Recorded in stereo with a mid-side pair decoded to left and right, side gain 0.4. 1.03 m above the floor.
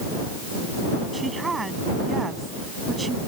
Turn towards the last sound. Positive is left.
turn(degrees=-30)